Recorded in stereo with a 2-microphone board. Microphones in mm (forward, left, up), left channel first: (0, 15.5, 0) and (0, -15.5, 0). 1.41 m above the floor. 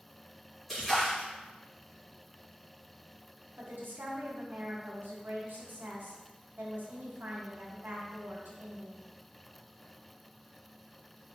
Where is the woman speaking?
80° right, 0.9 m.